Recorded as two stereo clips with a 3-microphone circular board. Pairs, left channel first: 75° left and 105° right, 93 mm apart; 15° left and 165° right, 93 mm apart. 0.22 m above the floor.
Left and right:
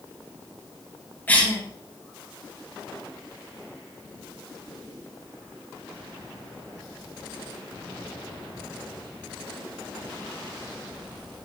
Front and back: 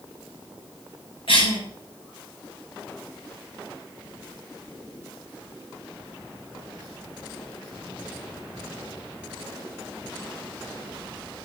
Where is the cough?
Straight ahead, 3 m.